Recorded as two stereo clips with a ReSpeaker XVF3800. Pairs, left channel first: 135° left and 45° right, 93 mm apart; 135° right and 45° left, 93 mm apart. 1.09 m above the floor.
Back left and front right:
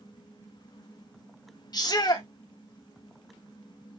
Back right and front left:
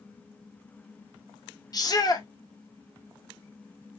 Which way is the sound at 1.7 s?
Straight behind.